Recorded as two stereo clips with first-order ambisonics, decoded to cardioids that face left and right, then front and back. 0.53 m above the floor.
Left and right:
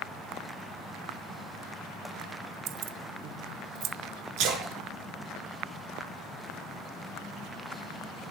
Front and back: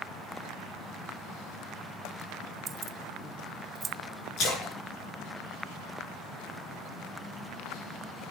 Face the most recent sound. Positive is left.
turn(degrees=-50)